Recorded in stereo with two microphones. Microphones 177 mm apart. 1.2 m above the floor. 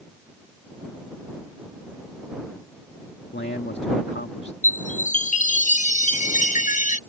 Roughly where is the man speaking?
Left.